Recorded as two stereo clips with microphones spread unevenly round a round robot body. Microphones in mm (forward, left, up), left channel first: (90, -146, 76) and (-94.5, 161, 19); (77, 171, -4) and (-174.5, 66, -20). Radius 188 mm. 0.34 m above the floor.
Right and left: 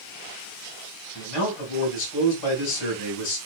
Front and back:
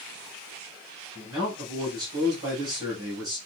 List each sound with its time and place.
1.1 s a man speaking: 80° right, 4 m